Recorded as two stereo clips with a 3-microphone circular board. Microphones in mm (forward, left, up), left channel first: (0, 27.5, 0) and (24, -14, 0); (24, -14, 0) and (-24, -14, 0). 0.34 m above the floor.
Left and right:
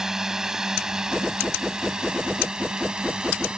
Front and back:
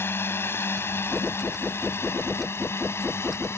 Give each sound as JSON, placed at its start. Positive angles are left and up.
{"t": 0.0, "sound": "a drone", "azimuth_deg": 20}